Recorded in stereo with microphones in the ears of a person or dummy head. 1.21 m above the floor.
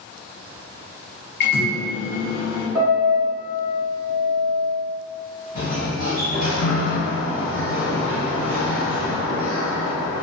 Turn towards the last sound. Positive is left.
turn(degrees=50)  # may be behind; listen again after turning